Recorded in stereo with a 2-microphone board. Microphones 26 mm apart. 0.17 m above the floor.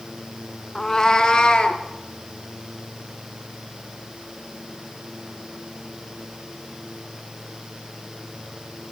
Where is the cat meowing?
20° left (ahead or behind), 0.7 m; by 1.8 s 35° left (ahead or behind), 1.3 m.